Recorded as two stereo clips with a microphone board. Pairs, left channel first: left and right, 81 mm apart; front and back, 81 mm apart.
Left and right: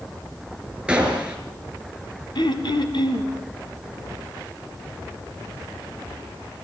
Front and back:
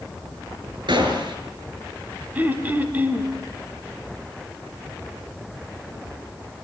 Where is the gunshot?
165° right, 4.5 m.